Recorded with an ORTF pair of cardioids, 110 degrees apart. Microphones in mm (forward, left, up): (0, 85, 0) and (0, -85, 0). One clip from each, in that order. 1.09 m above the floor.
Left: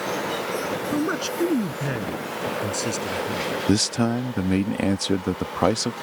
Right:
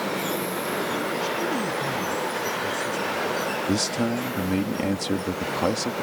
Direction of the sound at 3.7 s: 50° left.